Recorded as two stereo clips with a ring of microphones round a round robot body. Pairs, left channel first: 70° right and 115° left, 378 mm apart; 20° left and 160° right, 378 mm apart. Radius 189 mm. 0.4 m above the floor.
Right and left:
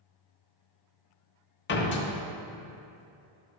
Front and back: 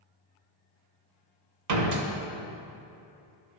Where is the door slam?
125° right, 1.1 m.